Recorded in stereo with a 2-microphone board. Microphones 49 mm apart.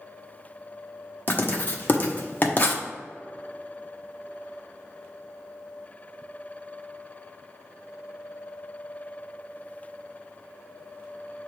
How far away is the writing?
About 1.0 m.